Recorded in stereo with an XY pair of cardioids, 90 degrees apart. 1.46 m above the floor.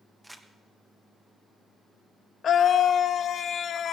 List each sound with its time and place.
0.2 s crumpling: 10° right, 1.3 m
2.4 s a scream: 65° left, 0.7 m